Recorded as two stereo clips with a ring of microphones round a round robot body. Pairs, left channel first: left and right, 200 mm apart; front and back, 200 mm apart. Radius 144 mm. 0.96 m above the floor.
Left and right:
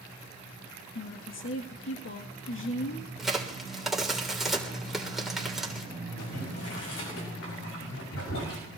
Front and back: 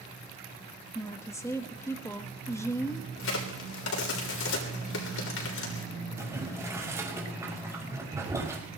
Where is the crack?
Straight ahead, 3.5 m.